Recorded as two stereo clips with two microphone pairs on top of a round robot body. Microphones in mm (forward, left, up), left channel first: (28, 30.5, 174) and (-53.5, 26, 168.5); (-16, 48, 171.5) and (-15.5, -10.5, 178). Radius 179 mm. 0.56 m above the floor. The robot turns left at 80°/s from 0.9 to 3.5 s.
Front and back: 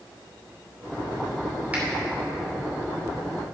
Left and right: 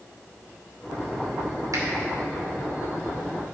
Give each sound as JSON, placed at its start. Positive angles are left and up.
{"t": 1.7, "sound": "a finger snap", "azimuth_deg": -110, "distance_m": 2.5}